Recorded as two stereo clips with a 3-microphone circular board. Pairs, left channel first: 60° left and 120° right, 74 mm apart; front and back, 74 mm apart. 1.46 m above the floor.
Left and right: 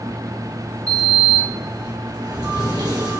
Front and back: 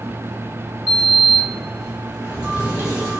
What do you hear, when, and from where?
0.9 s a sliding door: 110° right, 2.5 m